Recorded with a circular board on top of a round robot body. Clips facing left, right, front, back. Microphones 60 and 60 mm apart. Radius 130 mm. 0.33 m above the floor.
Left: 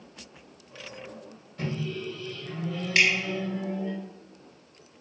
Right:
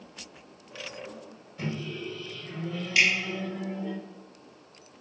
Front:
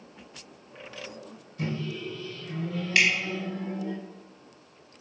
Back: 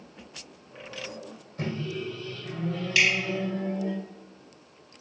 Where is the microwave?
175° right, 1.3 m.